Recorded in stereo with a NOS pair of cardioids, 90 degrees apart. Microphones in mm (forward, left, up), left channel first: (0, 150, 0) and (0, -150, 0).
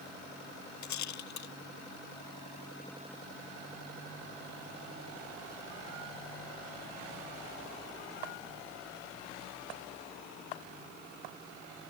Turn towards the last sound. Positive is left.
turn(degrees=65)